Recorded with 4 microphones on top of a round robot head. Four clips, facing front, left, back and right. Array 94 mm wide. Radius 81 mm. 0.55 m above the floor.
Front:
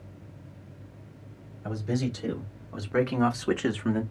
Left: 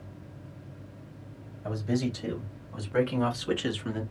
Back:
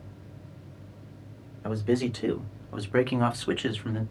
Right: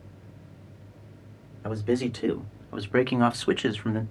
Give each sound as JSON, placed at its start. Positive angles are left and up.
{"t": 1.6, "sound": "a man speaking", "azimuth_deg": -135, "distance_m": 1.6}